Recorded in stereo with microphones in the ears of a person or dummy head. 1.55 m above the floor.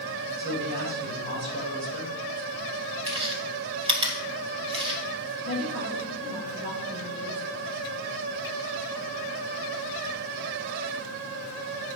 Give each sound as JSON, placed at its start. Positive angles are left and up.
{"t": 0.4, "sound": "a man speaking", "side_deg": -65, "distance_m": 5.5}
{"t": 3.1, "sound": "chewing", "side_deg": -35, "distance_m": 2.5}
{"t": 5.4, "sound": "a woman speaking", "side_deg": -70, "distance_m": 5.5}